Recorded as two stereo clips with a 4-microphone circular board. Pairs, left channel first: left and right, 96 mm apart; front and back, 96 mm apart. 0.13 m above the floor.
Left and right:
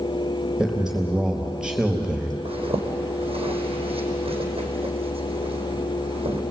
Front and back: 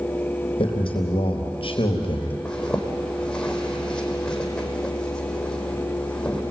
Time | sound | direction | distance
0.6 | a man speaking | 10° right | 3.5 m
2.5 | a zipper | 85° right | 4 m